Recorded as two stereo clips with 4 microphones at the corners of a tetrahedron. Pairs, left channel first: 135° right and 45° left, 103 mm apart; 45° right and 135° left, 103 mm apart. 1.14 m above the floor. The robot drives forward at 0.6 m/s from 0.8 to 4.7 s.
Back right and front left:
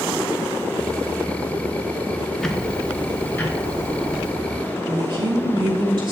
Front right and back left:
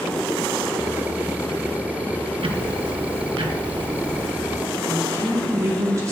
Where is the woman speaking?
80° left, 3.5 m.